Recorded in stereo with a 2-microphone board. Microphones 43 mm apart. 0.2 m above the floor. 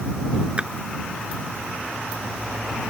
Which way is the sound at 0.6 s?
25° right (ahead or behind).